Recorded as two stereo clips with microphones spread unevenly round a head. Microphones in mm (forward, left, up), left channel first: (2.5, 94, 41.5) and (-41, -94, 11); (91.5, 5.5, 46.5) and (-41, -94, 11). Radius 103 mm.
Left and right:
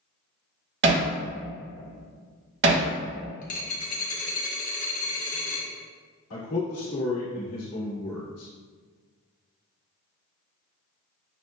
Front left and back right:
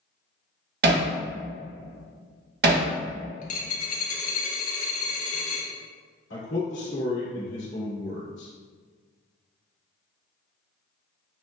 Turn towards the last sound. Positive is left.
turn(degrees=70)